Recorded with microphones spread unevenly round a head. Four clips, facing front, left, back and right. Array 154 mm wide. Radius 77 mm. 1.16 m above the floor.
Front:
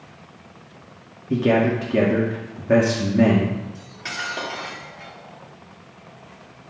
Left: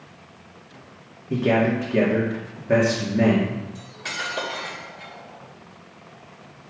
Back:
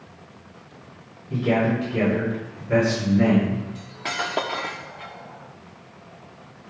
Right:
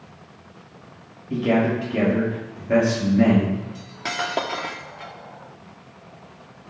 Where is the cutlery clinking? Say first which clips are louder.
Right 5 dB, back 3 dB; 130° right, 1.3 m.